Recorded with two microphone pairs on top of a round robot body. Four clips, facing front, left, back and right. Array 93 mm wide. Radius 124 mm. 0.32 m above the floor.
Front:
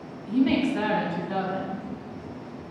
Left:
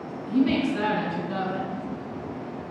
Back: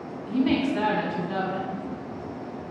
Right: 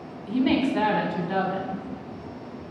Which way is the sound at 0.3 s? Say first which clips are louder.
Even, front 1 dB; 105° right.